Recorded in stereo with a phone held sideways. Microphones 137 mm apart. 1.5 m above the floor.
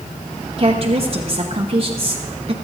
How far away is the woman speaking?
About 1.0 m.